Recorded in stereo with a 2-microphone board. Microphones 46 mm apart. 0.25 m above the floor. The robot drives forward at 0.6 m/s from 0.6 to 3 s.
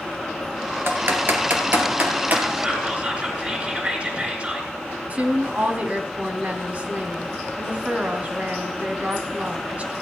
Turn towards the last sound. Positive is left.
turn(degrees=-30)  # may be behind; listen again after turning